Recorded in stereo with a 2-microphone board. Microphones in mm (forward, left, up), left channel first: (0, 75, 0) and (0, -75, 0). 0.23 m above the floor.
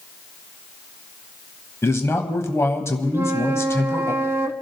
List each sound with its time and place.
1.8 s a man speaking: 20° left (ahead or behind), 1.1 m
3.1 s a flute: 15° right (ahead or behind), 0.8 m